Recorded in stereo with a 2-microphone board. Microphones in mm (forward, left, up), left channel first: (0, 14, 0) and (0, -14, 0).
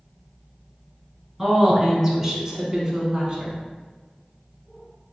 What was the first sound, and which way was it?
A woman speaking, 10° right (ahead or behind).